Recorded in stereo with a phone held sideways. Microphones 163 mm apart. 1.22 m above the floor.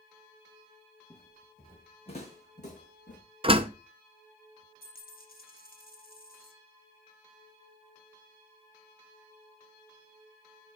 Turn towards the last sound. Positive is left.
turn(degrees=65)  # may be behind; listen again after turning